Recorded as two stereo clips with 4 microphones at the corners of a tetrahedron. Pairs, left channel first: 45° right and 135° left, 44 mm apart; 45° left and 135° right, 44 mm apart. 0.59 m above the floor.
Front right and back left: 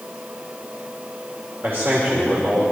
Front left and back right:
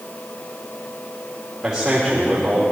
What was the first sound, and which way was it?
A man speaking, 145° left.